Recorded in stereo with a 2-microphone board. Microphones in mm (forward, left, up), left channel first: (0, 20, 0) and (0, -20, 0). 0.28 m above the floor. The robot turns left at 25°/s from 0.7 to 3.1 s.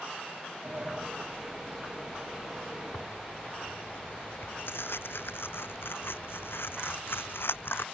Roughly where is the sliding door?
Right.